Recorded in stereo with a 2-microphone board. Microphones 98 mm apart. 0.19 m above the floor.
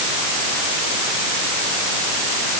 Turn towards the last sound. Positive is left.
No sound to turn to.